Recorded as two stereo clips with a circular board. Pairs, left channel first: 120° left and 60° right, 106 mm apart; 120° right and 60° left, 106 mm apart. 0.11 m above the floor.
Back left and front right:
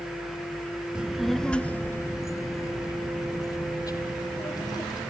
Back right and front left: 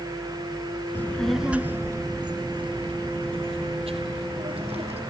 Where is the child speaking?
125° right, 0.7 m; by 5.0 s 70° left, 2.5 m.